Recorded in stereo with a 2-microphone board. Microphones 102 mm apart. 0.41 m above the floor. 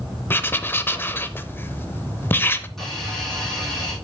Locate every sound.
0.3 s writing: 20° left (ahead or behind), 0.5 m
2.8 s a hiss: 5° left (ahead or behind), 3 m